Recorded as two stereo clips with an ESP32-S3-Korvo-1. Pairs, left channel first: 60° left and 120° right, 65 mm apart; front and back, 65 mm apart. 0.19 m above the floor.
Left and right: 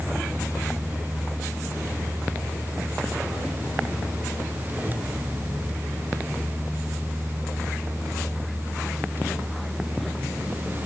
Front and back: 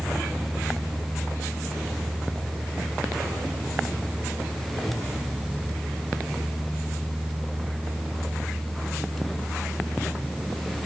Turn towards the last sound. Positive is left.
No sound to turn to.